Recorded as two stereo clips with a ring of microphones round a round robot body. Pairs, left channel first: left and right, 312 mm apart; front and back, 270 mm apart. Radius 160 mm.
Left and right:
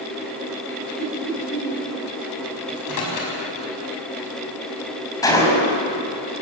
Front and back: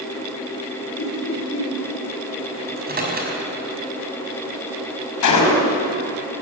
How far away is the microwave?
About 5.5 m.